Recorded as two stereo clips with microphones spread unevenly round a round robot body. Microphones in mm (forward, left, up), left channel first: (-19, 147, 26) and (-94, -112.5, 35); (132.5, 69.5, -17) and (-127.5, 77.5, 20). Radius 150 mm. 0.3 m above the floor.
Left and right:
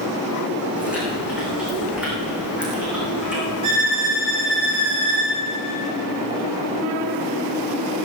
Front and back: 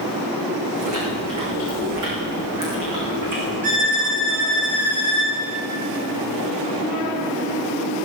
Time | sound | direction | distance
0.8 | chewing | 170° left | 5 m
3.6 | a violin | 120° right | 6 m